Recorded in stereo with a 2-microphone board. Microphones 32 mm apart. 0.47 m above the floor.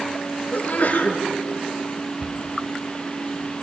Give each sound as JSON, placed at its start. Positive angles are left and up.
{"t": 0.5, "sound": "a sneeze", "side_deg": 55, "distance_m": 7.0}
{"t": 2.2, "sound": "a cupboard door", "side_deg": -35, "distance_m": 1.2}